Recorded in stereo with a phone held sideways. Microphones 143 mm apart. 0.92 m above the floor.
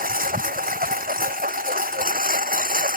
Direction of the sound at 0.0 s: 80° right.